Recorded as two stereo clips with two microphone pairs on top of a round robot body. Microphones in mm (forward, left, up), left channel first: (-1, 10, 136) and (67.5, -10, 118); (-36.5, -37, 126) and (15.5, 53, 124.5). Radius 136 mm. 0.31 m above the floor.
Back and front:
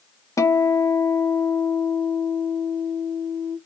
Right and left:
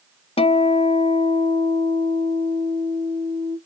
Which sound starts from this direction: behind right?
A guitar, at 0.4 s.